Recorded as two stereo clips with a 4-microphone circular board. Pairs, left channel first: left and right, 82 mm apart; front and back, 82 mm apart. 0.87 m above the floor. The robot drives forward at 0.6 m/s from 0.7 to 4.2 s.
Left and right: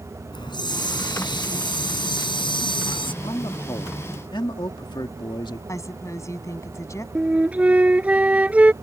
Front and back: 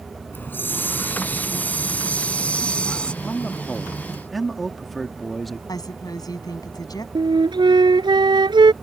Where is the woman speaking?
40° left.